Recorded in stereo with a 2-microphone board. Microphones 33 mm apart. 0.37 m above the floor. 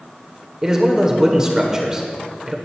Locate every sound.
0.6 s a man speaking: 15° right (ahead or behind), 1.2 m